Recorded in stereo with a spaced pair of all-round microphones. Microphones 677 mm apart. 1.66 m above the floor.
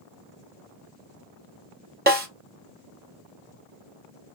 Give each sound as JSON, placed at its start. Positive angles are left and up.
{"t": 2.1, "sound": "a snare drum", "side_deg": -15, "distance_m": 0.7}